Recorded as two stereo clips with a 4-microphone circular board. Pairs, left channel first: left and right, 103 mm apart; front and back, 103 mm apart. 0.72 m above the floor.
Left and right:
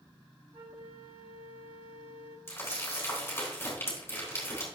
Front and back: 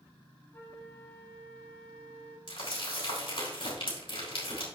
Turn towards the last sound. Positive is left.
turn(degrees=25)